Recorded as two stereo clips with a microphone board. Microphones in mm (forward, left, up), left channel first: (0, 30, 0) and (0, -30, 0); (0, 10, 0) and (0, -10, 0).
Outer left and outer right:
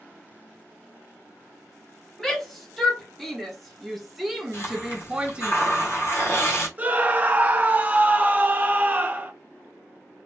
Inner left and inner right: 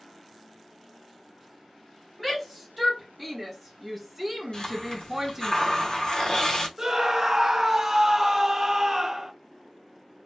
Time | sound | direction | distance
2.2 | a shout | 5° left (ahead or behind) | 1.8 m
4.5 | a hiss | 45° left (ahead or behind) | 1.2 m
6.8 | a scream | 25° right (ahead or behind) | 0.8 m